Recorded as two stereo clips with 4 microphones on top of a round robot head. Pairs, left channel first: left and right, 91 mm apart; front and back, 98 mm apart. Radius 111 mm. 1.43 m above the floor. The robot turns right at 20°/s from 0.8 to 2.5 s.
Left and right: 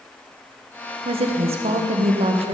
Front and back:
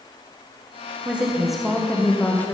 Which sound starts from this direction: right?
A woman speaking, at 1.1 s.